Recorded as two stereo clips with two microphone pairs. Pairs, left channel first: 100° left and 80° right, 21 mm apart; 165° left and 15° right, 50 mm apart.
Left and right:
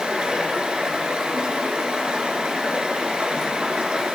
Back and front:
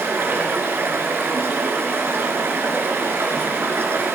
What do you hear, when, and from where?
0.0 s running water: 55° right, 2 m